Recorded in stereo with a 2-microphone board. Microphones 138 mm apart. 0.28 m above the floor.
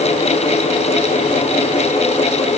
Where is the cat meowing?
I don't hear a cat meowing.